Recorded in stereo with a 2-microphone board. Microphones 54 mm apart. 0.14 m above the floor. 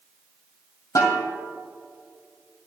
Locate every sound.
0.9 s a snare drum: 75° left (ahead or behind), 2.5 m